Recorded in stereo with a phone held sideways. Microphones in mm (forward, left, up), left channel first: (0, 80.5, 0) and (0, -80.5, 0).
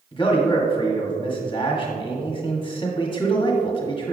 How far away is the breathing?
I don't hear breathing.